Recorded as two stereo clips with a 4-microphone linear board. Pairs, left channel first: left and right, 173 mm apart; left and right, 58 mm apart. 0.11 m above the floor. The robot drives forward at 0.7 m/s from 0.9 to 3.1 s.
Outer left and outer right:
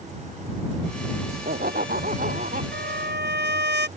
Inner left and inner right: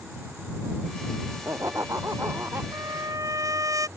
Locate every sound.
1.3 s laughter: 60° right (ahead or behind); by 2.6 s 55° right (ahead or behind)
2.7 s a trumpet: 80° right; by 3.9 s 75° right (ahead or behind)